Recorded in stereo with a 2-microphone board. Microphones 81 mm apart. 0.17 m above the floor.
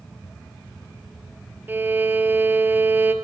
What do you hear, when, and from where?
1.7 s a violin: 25° right (ahead or behind), 2 m